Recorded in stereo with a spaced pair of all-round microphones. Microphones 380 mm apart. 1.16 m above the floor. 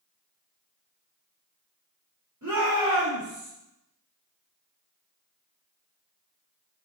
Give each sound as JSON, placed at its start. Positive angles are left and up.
{"t": 2.4, "sound": "a shout", "side_deg": -50, "distance_m": 2.5}